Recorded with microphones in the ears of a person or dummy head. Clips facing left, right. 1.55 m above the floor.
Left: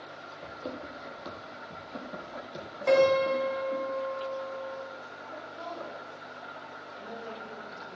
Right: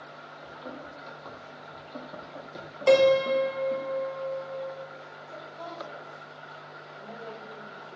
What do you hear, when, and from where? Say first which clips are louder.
0.4 s running footsteps: left 3 dB; 50° left (ahead or behind), 3.5 m; by 3.8 s 15° right (ahead or behind), 5 m
2.9 s a piano: right 3 dB; 50° right (ahead or behind), 2.5 m
5.3 s a woman speaking: left 1 dB; 25° left (ahead or behind), 4 m